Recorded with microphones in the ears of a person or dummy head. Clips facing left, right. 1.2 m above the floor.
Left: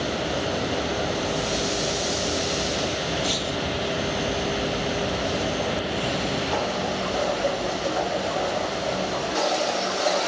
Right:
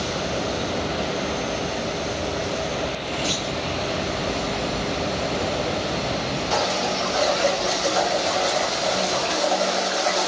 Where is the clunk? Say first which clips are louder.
Even; 5° left (ahead or behind), 3.5 m.